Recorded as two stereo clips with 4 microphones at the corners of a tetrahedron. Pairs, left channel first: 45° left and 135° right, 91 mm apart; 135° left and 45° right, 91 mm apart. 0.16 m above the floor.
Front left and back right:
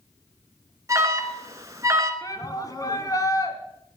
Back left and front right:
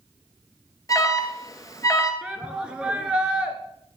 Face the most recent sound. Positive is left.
turn(degrees=30)